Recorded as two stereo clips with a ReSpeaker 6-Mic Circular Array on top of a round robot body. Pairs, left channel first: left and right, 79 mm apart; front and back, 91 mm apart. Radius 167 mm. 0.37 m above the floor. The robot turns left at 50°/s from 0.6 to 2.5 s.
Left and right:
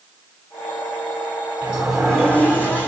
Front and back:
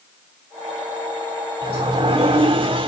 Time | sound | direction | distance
1.6 | a sliding door | 160° right | 3.5 m